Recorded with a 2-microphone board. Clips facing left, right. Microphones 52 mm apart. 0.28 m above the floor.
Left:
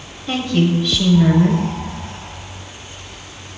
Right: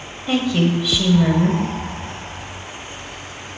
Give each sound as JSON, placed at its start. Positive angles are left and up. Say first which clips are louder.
{"t": 0.3, "sound": "a woman speaking", "louder": "left 1 dB", "side_deg": -5, "distance_m": 1.1}